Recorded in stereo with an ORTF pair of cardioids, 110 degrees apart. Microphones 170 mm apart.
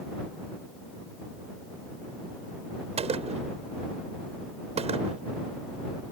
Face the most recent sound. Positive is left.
turn(degrees=-40)